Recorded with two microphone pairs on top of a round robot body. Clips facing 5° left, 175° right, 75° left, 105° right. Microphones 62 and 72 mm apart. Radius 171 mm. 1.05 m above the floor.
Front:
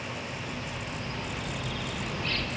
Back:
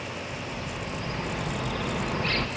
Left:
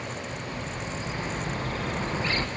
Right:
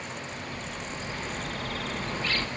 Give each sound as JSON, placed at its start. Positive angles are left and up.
{"t": 0.3, "sound": "a bird", "azimuth_deg": 140, "distance_m": 1.4}